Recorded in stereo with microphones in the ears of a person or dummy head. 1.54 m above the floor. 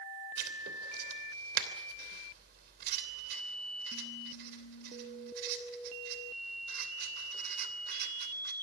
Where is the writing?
60° right (ahead or behind), 3 m.